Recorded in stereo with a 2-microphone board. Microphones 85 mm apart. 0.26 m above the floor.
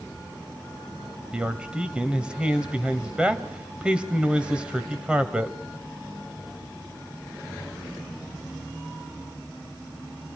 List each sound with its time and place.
1.3 s a man speaking: 10° right (ahead or behind), 1.4 m